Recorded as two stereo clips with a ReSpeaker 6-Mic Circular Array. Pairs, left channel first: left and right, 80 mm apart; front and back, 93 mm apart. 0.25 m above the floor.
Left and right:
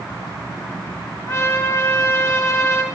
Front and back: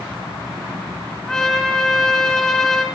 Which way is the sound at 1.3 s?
80° left.